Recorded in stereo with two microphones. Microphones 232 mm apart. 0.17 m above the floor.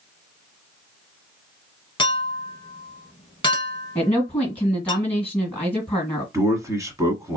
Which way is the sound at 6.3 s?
15° right (ahead or behind).